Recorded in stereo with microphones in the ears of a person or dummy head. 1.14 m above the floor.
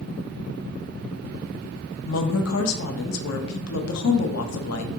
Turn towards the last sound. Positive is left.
turn(degrees=80)